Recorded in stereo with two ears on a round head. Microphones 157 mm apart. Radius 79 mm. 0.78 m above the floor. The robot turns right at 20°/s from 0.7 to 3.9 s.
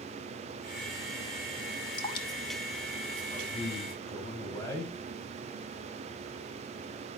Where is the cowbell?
No cowbell in this recording.